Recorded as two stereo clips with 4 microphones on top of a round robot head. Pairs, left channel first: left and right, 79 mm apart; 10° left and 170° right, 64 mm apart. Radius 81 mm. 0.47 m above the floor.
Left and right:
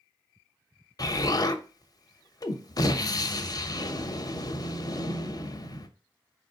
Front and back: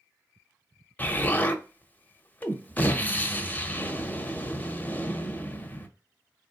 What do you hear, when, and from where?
1.0 s an explosion: 70° left, 0.7 m